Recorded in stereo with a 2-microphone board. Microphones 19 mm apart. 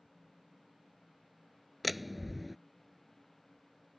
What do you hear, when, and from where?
1.8 s a door slam: 5° right (ahead or behind)